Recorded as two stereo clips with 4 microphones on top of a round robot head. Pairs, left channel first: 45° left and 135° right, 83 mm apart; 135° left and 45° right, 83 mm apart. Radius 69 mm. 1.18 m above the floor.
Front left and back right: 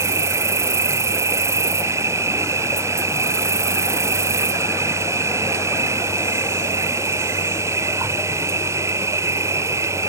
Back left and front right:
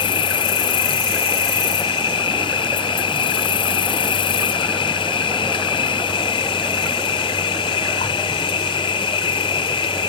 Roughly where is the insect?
Behind.